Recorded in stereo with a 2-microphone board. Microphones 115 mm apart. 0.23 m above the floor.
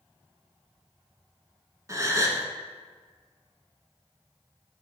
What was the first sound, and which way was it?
A gasp, 30° right (ahead or behind).